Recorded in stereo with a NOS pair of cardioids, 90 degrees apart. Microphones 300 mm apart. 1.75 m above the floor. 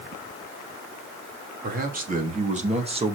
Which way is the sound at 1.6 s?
30° right.